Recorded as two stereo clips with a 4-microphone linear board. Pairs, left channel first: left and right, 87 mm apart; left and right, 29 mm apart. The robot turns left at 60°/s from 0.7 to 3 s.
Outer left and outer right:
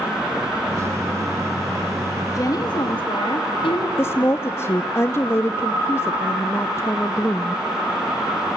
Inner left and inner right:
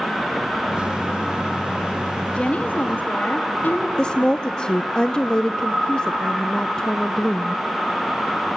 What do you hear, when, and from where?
2.4 s a woman speaking: 140° left, 1.6 m; by 3.9 s 105° left, 1.6 m
4.0 s a woman speaking: 30° left (ahead or behind), 0.6 m